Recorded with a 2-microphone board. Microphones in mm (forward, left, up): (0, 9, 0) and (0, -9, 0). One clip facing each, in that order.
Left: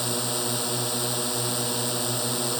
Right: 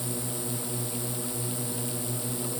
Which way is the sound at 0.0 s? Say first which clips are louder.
Left 7 dB; 50° left (ahead or behind).